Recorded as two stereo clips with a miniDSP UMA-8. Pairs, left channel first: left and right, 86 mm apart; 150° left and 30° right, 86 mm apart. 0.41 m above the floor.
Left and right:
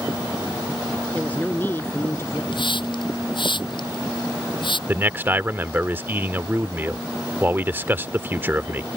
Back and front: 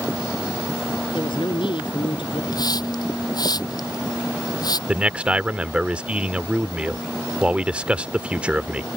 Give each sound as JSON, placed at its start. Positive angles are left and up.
{"t": 1.1, "sound": "a woman speaking", "azimuth_deg": 165}
{"t": 2.5, "sound": "a hiss", "azimuth_deg": 115}
{"t": 4.9, "sound": "a man speaking", "azimuth_deg": -85}